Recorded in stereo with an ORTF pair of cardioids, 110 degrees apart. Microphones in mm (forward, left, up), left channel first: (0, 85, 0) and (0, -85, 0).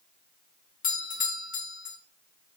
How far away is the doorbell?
About 1.5 m.